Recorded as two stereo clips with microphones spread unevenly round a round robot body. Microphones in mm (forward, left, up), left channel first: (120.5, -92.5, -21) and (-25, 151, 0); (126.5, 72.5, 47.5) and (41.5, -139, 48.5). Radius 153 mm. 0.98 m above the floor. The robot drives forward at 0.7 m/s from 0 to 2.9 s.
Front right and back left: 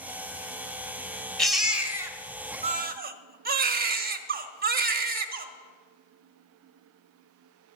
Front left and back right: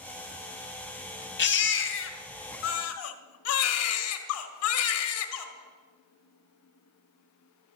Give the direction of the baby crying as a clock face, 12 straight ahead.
11 o'clock.